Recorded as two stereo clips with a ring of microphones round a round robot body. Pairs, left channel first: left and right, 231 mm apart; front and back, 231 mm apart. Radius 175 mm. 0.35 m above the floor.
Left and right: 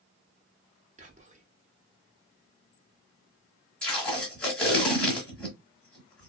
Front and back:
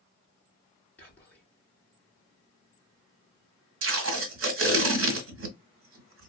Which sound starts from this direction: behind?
Tape being pulled, at 3.8 s.